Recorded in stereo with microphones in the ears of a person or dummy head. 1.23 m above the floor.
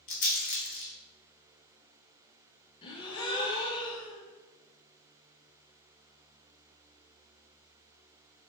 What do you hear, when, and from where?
0.1 s a rattle: 45° left (ahead or behind), 0.6 m
2.8 s a gasp: 25° left (ahead or behind), 0.5 m